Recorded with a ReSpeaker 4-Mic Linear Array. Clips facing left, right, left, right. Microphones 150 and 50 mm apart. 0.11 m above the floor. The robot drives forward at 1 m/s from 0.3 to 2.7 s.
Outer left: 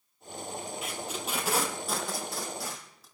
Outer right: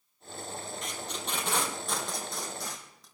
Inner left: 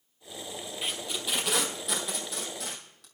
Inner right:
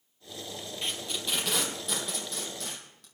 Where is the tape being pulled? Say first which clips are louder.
Outer left 2 dB, even; 5° left (ahead or behind), 1.9 m.